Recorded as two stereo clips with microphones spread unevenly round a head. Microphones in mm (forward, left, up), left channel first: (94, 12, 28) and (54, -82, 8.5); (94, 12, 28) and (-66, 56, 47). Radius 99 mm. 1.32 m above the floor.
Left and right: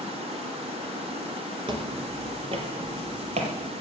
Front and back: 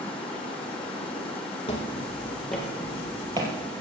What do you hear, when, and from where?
0.0 s running water: 100° right, 1.7 m
1.7 s footsteps: 80° right, 2 m; by 3.5 s 135° right, 2.5 m